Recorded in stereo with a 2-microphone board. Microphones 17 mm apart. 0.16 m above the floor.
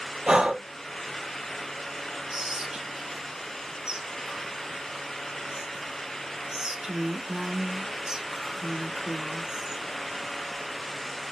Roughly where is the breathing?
Right.